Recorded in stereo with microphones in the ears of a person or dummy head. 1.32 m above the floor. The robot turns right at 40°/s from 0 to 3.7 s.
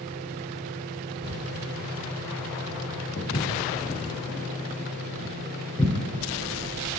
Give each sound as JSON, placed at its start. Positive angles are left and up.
{"t": 1.2, "sound": "ticking", "side_deg": -75, "distance_m": 2.0}
{"t": 3.2, "sound": "footsteps", "side_deg": 35, "distance_m": 1.9}